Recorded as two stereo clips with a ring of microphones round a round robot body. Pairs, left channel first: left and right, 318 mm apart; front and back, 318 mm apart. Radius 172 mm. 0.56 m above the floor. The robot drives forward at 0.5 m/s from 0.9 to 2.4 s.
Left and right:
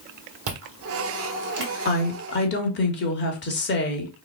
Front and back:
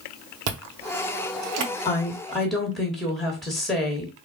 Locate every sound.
0.5 s chewing: 140° right, 0.9 m; by 1.7 s 155° right, 1.3 m
1.9 s a woman speaking: 65° left, 1.2 m; by 4.1 s 90° left, 1.2 m